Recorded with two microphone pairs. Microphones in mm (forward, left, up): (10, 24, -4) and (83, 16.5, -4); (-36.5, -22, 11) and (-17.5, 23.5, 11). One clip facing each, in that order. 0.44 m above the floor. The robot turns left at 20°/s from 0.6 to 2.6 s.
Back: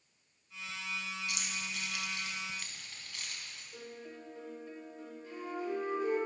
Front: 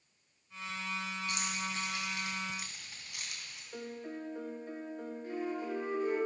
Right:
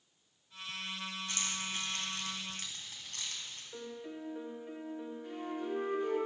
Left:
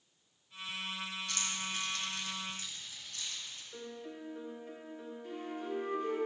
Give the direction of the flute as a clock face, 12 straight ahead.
2 o'clock.